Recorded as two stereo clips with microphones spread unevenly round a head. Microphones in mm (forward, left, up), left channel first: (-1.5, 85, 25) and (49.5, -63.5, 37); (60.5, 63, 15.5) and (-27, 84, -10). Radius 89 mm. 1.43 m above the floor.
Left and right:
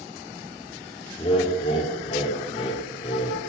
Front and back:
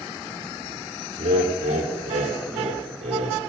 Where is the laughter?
170° left, 3.5 m.